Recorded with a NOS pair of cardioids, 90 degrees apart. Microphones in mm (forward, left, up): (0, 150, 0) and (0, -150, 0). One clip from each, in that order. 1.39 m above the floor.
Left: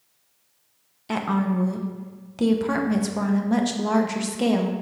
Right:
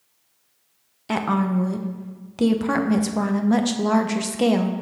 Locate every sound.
1.1 s a woman speaking: 15° right, 0.8 m